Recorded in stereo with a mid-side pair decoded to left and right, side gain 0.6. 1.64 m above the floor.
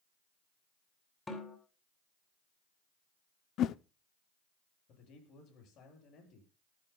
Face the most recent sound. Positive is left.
turn(degrees=60)